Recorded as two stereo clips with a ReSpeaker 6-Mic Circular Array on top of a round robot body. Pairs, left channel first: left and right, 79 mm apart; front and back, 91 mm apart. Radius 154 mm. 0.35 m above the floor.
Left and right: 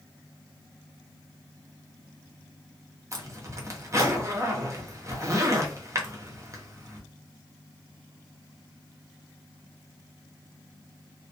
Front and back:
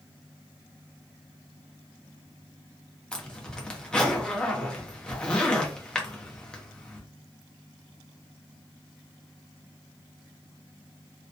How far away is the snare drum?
No snare drum in this recording.